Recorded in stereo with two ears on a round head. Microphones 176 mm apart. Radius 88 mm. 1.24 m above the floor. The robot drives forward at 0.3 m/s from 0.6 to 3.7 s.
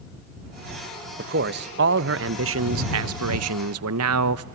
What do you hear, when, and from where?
1.2 s a man speaking: 50° right (ahead or behind), 1.1 m; by 4.5 s 85° right, 0.9 m